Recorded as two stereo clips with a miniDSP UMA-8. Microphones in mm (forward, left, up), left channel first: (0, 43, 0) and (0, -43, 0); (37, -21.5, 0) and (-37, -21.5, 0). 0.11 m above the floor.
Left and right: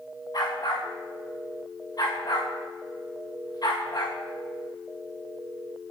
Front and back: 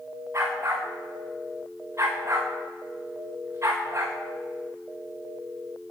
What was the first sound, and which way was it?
A dog barking, 125° left.